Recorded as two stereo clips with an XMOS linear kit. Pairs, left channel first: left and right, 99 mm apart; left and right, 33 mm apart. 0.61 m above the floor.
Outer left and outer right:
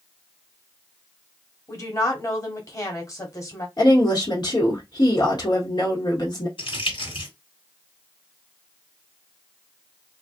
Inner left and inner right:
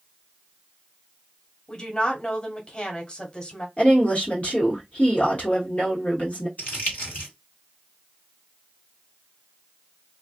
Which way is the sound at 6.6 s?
60° left (ahead or behind).